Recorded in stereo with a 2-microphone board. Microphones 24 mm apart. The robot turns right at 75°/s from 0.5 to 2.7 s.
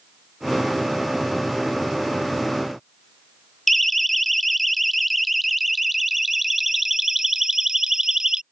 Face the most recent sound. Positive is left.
turn(degrees=-25)  # may be behind; listen again after turning